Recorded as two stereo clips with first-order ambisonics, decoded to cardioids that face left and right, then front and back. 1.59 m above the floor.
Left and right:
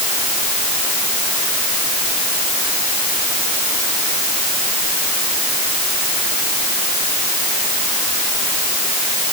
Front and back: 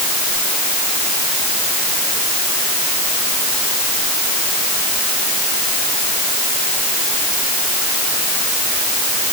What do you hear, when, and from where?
Only background noise.